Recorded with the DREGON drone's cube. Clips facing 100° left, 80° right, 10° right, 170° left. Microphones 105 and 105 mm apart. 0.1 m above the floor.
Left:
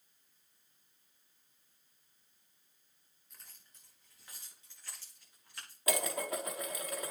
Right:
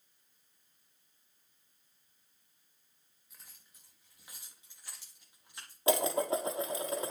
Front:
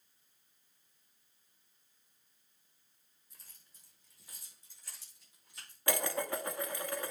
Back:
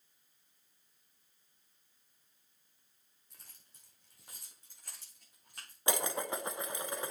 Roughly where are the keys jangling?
Behind.